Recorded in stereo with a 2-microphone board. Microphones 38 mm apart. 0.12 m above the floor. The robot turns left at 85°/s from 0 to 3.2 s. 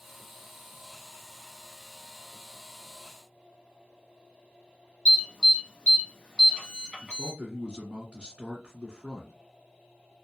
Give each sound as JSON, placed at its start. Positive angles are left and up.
{"t": 5.0, "sound": "an alarm", "side_deg": 25, "distance_m": 1.7}
{"t": 7.0, "sound": "a man speaking", "side_deg": -15, "distance_m": 1.7}